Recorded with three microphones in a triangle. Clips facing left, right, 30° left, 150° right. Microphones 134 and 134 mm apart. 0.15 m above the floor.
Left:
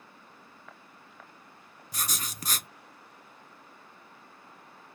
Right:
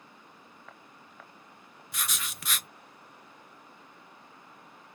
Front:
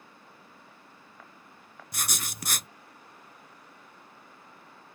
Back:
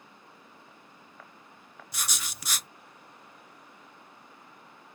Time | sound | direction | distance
1.9 | writing | 50° left | 0.5 m